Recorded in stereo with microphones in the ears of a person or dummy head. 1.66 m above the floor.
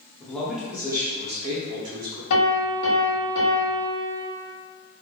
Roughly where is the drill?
I don't hear a drill.